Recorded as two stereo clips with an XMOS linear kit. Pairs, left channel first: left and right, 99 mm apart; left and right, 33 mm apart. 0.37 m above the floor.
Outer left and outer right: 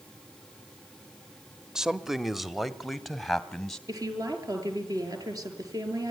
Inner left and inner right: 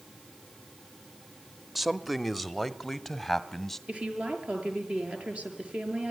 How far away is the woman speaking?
About 6.5 m.